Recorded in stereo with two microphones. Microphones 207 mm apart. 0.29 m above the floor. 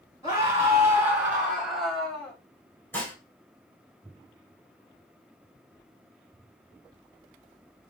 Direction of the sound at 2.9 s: 10° left (ahead or behind).